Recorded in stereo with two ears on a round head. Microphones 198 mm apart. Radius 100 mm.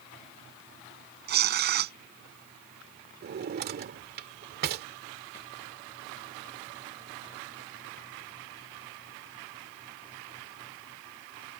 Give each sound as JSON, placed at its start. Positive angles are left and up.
{"t": 1.3, "sound": "tearing paper", "side_deg": -50}
{"t": 3.2, "sound": "a drawer", "side_deg": -45}